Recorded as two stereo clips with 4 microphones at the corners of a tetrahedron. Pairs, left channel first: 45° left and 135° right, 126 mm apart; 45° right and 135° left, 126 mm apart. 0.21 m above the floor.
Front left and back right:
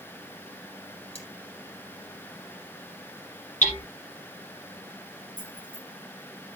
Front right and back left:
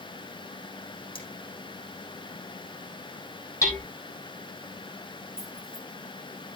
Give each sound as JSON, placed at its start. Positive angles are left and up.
{"t": 1.1, "sound": "cutlery clinking", "azimuth_deg": 5, "distance_m": 5.0}
{"t": 3.6, "sound": "hammering", "azimuth_deg": 20, "distance_m": 3.5}
{"t": 5.4, "sound": "keys jangling", "azimuth_deg": 50, "distance_m": 7.5}